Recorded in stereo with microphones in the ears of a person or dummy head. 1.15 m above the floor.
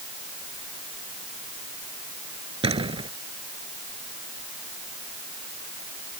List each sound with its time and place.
2.6 s a door slam: 30° right (ahead or behind)